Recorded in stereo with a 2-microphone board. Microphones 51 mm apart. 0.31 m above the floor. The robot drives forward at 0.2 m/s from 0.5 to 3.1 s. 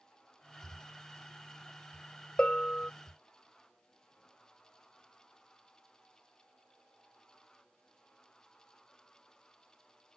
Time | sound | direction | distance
2.4 | a bell | 25° left (ahead or behind) | ?